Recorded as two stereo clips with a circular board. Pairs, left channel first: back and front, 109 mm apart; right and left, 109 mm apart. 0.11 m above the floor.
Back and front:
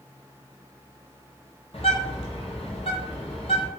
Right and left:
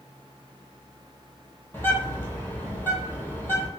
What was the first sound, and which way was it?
A bird, 160° right.